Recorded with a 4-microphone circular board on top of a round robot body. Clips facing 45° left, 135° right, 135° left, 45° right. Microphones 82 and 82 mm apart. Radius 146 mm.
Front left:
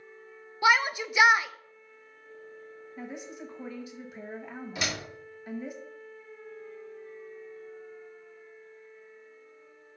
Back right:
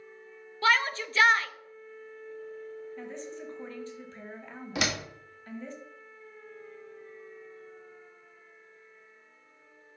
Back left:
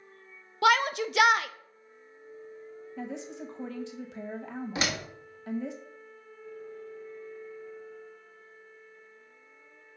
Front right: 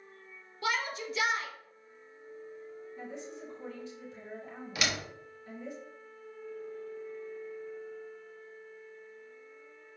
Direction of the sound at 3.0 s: 125° left.